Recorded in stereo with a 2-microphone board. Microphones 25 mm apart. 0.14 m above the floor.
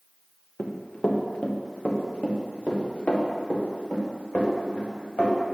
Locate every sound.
0.6 s running footsteps: 85° left, 1.1 m; by 5.3 s 75° left (ahead or behind), 3.5 m